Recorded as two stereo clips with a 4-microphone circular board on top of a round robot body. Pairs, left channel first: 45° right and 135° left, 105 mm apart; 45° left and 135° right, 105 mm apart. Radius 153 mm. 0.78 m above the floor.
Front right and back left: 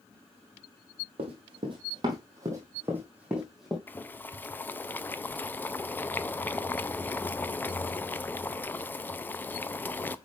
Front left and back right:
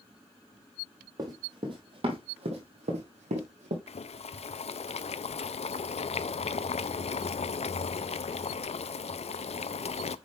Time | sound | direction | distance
1.2 | running footsteps | 170° left | 1.8 m
3.9 | boiling | 30° left | 0.6 m